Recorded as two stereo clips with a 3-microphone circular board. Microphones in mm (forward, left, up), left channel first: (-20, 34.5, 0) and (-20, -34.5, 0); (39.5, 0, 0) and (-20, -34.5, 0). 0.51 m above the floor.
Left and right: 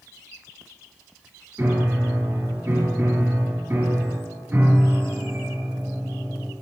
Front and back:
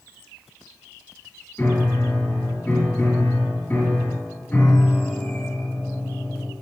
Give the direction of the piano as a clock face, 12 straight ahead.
1 o'clock.